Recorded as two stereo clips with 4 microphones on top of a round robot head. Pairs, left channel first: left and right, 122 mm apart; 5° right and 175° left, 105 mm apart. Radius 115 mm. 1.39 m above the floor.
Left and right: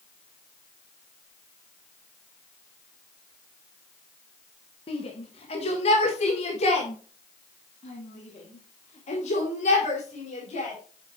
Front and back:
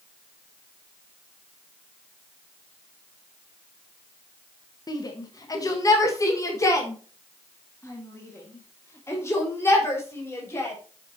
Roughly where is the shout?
Ahead left.